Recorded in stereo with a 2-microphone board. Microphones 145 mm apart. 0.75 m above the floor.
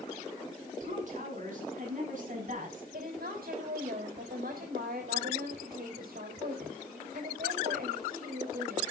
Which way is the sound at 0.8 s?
55° right (ahead or behind).